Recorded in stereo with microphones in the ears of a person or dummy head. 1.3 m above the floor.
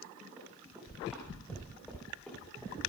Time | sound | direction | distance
0.4 | running footsteps | 5° left (ahead or behind) | 7 m